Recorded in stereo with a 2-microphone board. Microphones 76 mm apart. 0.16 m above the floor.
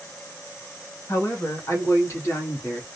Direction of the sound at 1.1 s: 45° left (ahead or behind).